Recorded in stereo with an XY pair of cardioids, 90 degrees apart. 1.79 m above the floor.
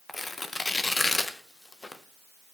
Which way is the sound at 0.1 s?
25° left.